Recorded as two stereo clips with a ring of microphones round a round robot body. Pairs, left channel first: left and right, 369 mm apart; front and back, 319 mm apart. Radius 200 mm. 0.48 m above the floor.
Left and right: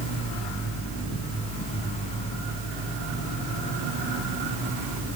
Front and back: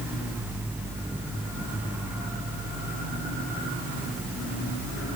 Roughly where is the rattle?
I don't hear a rattle.